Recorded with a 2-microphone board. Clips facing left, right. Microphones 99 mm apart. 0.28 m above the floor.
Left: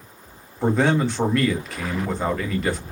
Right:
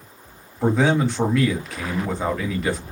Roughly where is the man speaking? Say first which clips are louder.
Right 1 dB; centre.